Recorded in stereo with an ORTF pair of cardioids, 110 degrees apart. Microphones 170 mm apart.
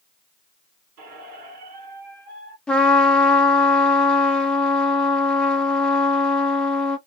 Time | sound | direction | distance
1.0 | a squeak | 70° right | 2.5 m
2.7 | a trumpet | 5° left | 1.1 m